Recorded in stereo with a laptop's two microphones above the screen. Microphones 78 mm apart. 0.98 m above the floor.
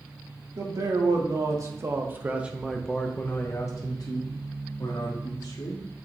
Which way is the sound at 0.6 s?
60° right (ahead or behind).